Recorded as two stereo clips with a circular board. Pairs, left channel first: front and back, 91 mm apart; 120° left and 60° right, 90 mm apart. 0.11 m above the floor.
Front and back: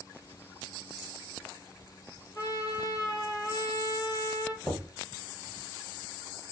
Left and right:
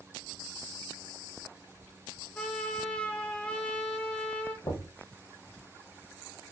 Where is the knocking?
85° left, 1.9 m.